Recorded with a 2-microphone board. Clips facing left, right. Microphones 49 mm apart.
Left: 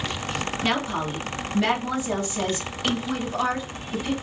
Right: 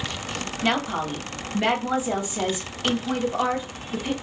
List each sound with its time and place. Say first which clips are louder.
0.6 s a woman speaking: right 2 dB; 15° right (ahead or behind), 1.2 m